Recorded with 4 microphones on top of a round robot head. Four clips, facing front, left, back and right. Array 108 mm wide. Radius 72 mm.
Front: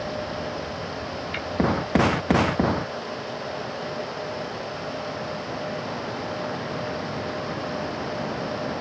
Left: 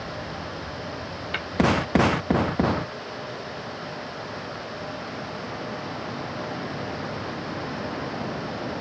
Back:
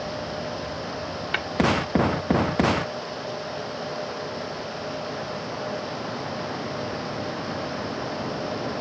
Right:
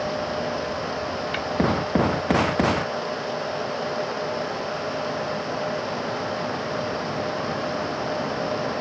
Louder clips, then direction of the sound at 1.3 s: Right 4 dB, back 3 dB; 170° left.